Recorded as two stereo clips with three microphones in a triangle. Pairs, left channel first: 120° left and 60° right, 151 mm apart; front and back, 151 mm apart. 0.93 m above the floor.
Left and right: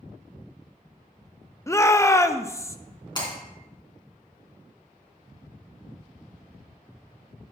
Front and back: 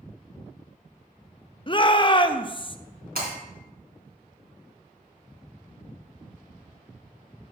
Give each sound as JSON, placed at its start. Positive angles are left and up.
{"t": 1.7, "sound": "a shout", "azimuth_deg": 50, "distance_m": 0.6}
{"t": 3.1, "sound": "breaking glass", "azimuth_deg": 180, "distance_m": 4.0}